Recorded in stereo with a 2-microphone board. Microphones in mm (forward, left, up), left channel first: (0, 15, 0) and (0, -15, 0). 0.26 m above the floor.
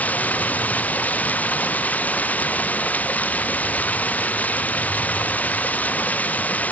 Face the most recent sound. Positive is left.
turn(degrees=60)  # may be behind; listen again after turning